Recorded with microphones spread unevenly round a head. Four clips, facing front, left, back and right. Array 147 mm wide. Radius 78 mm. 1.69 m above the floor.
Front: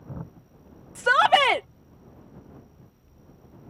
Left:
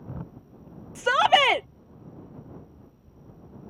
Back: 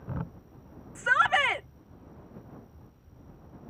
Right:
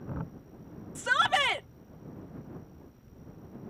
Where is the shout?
45° left.